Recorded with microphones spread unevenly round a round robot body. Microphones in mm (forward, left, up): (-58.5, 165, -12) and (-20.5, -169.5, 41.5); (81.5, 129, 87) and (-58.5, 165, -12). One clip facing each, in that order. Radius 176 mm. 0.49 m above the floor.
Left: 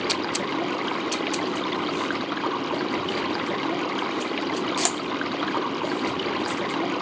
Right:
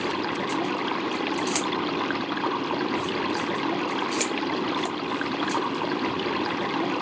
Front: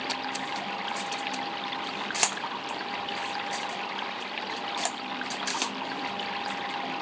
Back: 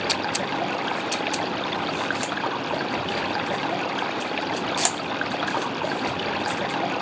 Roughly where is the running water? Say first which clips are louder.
Even, back 8 dB; behind.